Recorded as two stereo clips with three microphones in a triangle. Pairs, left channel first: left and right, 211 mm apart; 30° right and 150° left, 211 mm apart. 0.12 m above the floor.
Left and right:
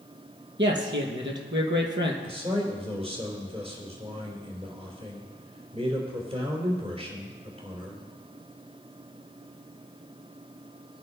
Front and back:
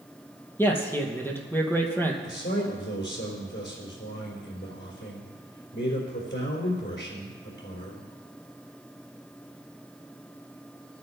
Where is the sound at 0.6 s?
110° right, 2.5 m.